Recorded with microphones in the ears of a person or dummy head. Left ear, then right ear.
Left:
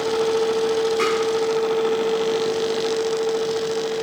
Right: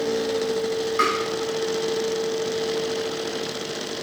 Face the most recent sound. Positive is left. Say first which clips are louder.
# right 4 dB
turn(degrees=-60)  # may be behind; listen again after turning